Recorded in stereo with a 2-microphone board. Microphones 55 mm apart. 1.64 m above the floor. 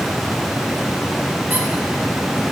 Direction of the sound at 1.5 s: 35° right (ahead or behind).